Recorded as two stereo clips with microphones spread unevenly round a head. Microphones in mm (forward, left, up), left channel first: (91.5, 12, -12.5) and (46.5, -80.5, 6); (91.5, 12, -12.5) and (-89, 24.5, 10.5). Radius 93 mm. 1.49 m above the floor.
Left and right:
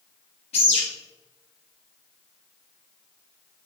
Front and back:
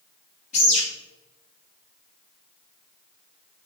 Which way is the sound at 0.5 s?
50° left.